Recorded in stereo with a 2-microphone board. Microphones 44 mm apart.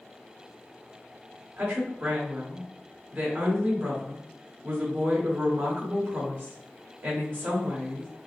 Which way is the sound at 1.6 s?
45° right (ahead or behind).